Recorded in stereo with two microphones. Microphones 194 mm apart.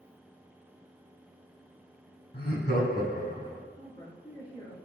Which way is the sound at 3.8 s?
35° left (ahead or behind).